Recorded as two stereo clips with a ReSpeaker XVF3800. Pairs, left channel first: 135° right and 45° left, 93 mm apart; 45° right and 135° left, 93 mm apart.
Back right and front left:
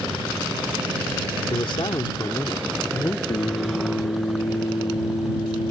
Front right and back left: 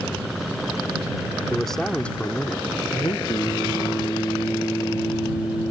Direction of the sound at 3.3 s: 105° right.